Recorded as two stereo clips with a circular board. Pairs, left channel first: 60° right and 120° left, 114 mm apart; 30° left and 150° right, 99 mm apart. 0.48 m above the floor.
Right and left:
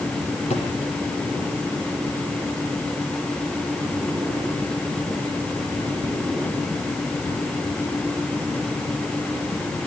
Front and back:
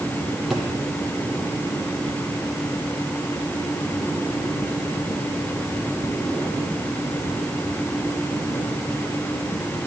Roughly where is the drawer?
Ahead right.